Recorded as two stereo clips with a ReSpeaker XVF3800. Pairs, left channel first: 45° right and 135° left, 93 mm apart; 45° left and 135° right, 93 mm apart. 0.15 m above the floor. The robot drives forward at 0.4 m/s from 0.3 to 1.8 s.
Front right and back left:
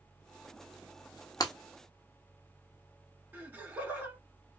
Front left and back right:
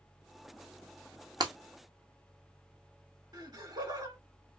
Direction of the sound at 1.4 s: 95° right.